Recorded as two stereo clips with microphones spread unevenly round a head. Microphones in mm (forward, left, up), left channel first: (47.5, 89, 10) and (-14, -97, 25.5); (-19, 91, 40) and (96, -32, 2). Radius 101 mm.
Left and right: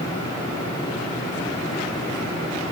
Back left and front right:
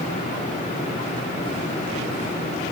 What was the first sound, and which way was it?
Only background noise.